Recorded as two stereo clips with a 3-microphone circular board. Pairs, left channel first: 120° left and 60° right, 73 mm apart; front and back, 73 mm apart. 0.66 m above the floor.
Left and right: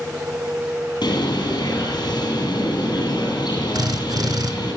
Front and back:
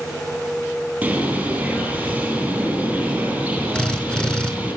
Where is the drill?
80° right, 4 m.